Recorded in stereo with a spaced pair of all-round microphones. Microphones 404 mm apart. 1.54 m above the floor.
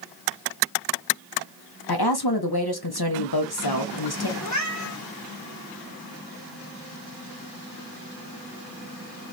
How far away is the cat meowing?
About 1.3 m.